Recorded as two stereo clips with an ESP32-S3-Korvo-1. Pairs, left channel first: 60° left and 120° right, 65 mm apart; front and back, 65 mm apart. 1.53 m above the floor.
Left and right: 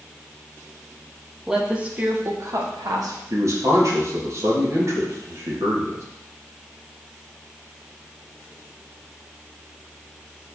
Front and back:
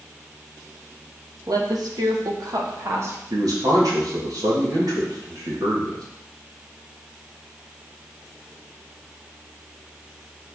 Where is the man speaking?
160° right, 2.5 m.